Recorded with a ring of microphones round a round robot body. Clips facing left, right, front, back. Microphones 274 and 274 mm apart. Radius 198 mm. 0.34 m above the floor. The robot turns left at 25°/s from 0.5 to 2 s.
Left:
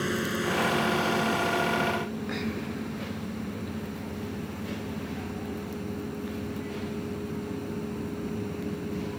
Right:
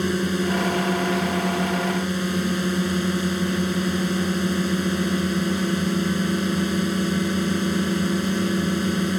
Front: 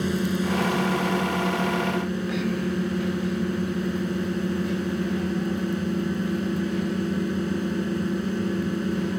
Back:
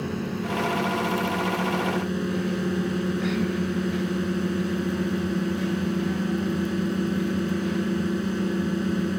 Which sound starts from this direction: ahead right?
A drone, at 0.0 s.